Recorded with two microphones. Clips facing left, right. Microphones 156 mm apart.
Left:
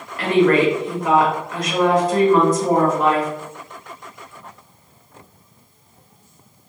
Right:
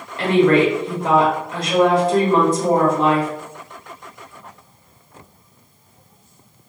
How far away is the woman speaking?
About 1.0 m.